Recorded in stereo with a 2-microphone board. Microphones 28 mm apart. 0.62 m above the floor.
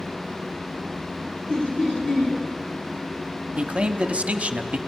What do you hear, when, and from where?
1.5 s laughter: 35° left (ahead or behind), 4.5 m
3.6 s a man speaking: 45° right (ahead or behind), 0.8 m